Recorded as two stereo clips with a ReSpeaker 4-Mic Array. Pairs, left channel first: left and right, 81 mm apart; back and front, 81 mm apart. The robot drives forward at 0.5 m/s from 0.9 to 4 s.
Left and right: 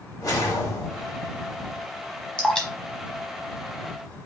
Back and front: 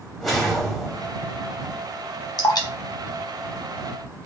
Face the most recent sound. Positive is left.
turn(degrees=170)